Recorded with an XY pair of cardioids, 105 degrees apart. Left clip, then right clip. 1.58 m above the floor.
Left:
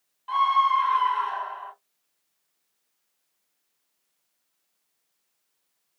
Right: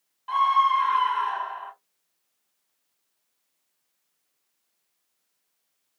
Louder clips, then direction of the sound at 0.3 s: Even; 15° right.